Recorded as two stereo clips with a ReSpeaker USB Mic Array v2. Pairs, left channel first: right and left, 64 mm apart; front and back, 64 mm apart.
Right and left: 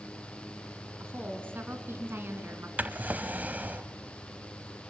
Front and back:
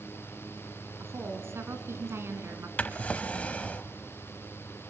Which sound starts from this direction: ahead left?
A drawer, at 2.8 s.